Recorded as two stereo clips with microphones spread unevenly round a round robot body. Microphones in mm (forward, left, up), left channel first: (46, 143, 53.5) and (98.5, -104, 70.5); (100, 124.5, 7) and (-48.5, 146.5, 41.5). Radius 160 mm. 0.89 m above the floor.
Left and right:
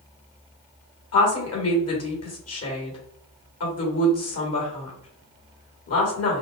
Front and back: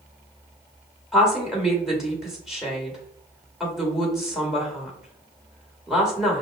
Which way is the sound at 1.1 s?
80° left.